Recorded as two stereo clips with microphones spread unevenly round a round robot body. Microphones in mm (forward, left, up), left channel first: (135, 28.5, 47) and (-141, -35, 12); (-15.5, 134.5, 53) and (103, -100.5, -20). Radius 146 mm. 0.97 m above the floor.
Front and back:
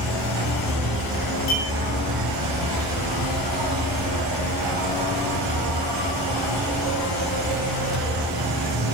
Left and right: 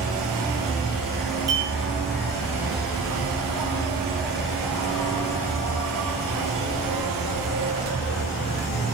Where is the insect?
165° right, 1.3 m.